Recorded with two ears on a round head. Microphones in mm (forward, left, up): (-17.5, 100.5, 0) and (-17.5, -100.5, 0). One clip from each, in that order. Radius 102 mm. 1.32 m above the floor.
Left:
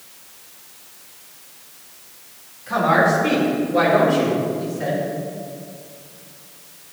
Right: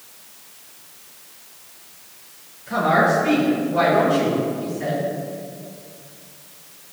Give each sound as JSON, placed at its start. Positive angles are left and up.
{"t": 2.7, "sound": "a woman speaking", "side_deg": 55, "distance_m": 3.0}